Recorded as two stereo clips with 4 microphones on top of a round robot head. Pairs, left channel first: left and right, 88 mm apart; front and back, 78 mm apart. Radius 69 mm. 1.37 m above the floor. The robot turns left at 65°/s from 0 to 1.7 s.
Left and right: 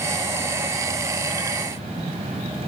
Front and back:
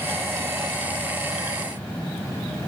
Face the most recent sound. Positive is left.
No sound to turn to.